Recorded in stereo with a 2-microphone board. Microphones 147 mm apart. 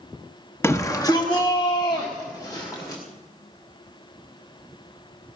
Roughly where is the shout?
Centre.